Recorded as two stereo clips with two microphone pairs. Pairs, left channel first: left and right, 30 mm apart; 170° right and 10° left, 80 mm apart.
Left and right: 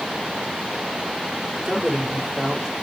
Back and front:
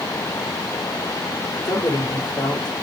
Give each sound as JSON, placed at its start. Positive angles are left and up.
{"t": 1.6, "sound": "a man speaking", "azimuth_deg": -170, "distance_m": 3.0}